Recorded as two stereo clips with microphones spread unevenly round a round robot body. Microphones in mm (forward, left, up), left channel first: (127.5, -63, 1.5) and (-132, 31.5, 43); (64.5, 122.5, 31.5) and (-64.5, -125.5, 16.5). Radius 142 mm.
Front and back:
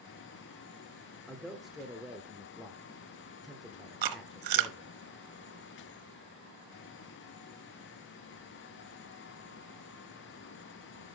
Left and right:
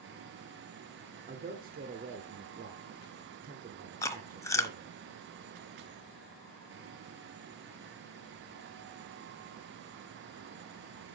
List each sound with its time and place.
1.3 s a man speaking: 100° right, 1.5 m
4.0 s chewing: 145° left, 1.0 m